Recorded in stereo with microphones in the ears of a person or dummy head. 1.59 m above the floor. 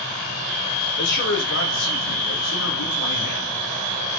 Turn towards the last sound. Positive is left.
turn(degrees=80)